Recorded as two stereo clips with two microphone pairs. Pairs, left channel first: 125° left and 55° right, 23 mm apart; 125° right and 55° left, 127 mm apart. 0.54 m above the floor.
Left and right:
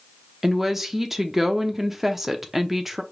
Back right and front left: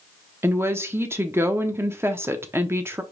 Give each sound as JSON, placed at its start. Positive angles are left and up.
{"t": 0.4, "sound": "a woman speaking", "azimuth_deg": 10, "distance_m": 0.7}